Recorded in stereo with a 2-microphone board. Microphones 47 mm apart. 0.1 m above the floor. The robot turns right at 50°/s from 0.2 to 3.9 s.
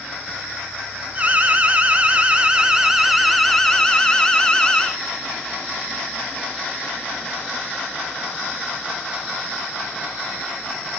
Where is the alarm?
110° right, 1.3 m; by 4.9 s 30° left, 1.3 m.